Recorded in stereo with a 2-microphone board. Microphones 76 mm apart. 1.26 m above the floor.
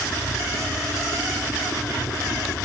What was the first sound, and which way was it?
A helicopter, 70° left (ahead or behind).